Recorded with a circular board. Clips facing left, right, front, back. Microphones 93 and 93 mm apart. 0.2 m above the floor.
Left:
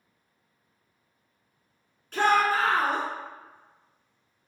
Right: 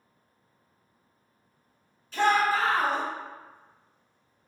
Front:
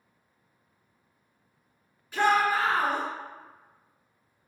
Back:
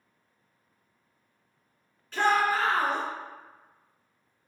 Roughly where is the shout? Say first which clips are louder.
Left 1 dB, front 1 dB; left.